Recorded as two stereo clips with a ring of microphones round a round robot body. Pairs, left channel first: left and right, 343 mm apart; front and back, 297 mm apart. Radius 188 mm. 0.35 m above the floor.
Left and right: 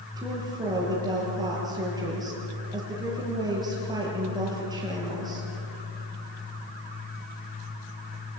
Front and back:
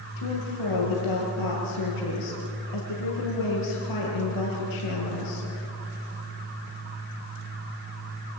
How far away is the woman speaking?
About 7.5 m.